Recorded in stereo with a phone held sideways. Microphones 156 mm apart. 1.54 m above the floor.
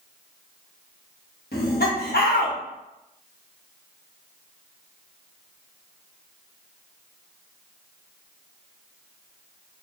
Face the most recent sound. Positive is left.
turn(degrees=80)